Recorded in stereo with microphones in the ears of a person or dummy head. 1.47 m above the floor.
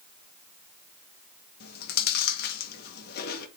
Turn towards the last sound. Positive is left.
turn(degrees=60)  # may be behind; listen again after turning